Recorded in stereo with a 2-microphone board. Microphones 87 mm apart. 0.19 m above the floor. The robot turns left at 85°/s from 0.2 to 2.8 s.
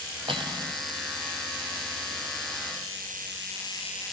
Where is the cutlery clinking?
95° right, 3 m; by 0.8 s 135° right, 3 m.